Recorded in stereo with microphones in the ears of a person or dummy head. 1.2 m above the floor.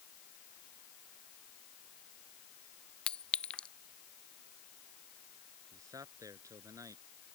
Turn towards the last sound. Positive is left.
turn(degrees=-20)  # may be behind; listen again after turning